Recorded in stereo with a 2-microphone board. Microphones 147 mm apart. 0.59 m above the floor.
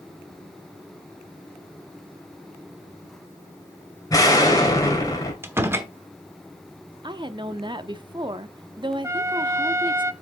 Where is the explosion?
25° left (ahead or behind), 2.5 m.